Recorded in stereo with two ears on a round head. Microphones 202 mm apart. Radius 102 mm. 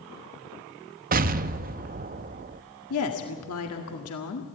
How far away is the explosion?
About 0.7 m.